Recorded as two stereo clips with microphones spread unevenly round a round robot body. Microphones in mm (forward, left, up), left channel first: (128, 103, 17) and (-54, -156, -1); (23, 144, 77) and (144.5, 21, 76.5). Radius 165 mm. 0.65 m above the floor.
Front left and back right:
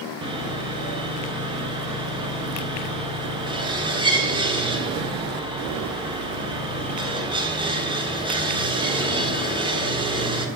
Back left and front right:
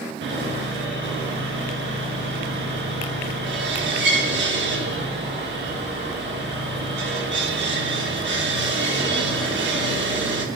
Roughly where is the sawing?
Ahead right.